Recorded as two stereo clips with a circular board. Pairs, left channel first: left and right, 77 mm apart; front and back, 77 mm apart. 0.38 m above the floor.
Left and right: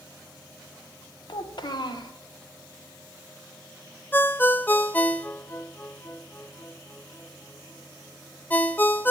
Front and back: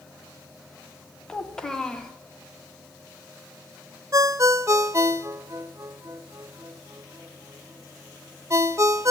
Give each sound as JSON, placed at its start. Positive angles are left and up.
{"t": 1.3, "sound": "a child speaking", "azimuth_deg": 80, "distance_m": 1.1}
{"t": 4.1, "sound": "a ringtone", "azimuth_deg": 150, "distance_m": 0.6}